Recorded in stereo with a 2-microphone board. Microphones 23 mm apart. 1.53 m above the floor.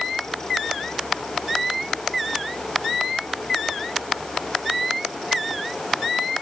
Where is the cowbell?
No cowbell in this recording.